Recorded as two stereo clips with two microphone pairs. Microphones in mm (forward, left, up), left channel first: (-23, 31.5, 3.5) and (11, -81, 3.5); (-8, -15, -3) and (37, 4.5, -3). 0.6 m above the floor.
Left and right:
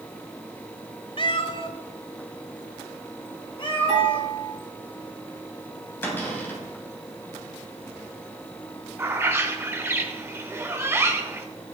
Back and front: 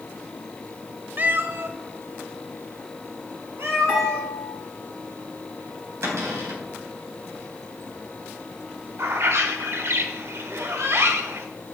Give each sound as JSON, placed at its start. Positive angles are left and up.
{"t": 1.2, "sound": "a cat meowing", "azimuth_deg": 70, "distance_m": 0.7}
{"t": 3.9, "sound": "dishes clattering", "azimuth_deg": 95, "distance_m": 6.0}
{"t": 6.0, "sound": "a cupboard door", "azimuth_deg": 35, "distance_m": 3.5}
{"t": 9.0, "sound": "a bird", "azimuth_deg": -5, "distance_m": 1.1}